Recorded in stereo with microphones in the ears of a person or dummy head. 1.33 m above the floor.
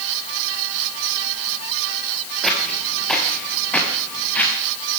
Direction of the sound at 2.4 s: 5° right (ahead or behind).